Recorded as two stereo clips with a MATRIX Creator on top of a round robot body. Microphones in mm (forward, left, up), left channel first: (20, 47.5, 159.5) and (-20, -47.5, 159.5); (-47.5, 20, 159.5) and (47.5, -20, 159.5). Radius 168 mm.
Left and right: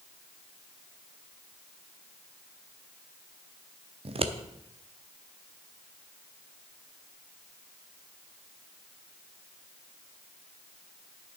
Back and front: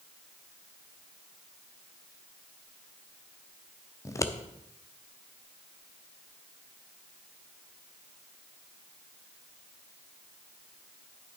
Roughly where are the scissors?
Behind right.